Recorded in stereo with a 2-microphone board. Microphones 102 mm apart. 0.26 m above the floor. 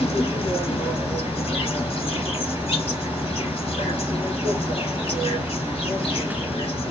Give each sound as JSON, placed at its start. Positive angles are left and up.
{"t": 0.0, "sound": "an insect", "side_deg": 70, "distance_m": 0.9}